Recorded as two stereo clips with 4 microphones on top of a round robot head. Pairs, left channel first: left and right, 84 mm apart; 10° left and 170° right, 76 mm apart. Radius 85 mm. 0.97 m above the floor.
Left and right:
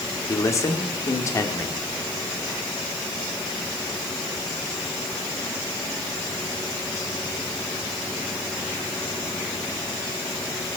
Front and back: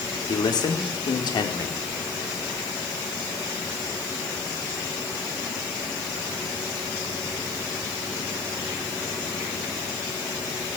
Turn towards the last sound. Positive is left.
turn(degrees=35)